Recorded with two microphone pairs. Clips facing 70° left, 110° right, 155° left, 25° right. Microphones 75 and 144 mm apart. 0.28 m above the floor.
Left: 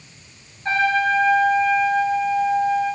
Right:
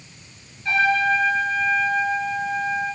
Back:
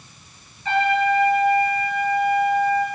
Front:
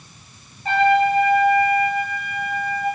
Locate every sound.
0.7 s a trumpet: 20° left, 6 m